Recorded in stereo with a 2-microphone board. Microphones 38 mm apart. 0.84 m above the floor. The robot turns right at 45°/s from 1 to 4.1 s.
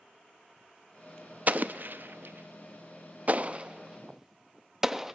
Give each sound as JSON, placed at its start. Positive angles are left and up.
{"t": 1.5, "sound": "an explosion", "side_deg": -45, "distance_m": 0.7}